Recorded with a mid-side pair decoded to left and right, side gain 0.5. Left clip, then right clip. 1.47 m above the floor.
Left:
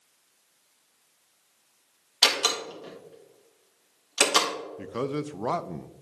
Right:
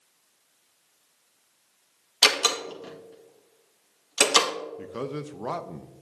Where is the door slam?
20° right, 1.6 m.